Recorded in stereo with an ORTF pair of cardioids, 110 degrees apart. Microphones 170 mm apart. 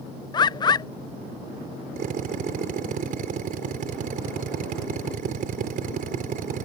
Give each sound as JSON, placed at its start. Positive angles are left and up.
{"t": 0.3, "sound": "a bird", "azimuth_deg": 25}
{"t": 2.0, "sound": "a drill", "azimuth_deg": -55}